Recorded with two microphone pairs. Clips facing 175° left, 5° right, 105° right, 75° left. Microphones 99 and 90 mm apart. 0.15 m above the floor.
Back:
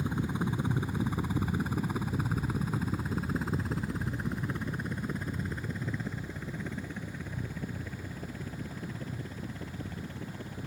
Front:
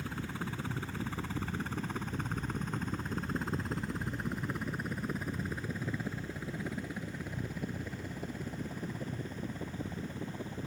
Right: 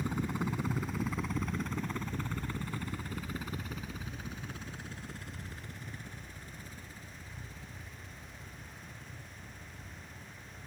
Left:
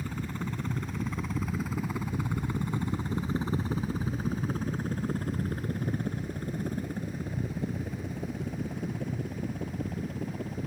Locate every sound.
0.0 s a helicopter: 150° right; by 10.7 s 70° left